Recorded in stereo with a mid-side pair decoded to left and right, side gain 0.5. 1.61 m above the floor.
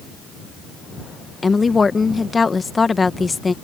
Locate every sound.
1.4 s a woman speaking: 30° left